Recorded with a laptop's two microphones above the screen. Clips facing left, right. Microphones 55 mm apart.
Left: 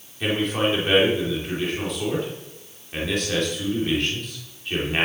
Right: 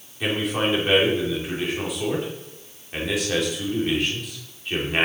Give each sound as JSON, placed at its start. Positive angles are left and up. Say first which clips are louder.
{"t": 0.2, "sound": "a man speaking", "louder": "left 1 dB", "side_deg": -5, "distance_m": 2.5}